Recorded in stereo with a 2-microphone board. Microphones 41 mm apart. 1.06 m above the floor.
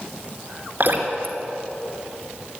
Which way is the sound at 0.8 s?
50° right (ahead or behind).